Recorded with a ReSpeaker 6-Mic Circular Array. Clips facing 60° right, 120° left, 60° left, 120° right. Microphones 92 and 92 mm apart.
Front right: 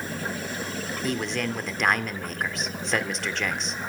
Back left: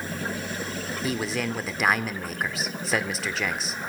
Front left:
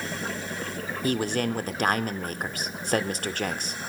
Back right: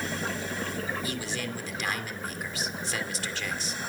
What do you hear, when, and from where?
1.0 s a man speaking: 35° left, 1.6 m